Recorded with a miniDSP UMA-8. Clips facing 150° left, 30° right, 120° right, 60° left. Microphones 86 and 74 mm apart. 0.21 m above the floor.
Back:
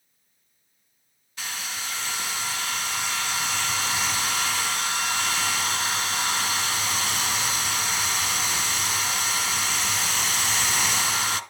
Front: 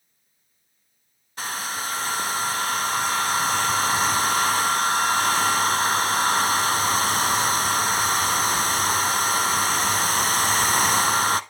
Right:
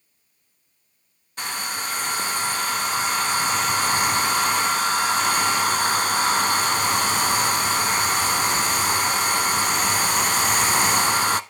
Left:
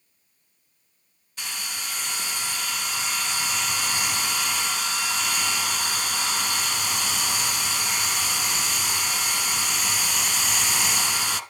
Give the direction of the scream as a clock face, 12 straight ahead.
I don't hear a scream.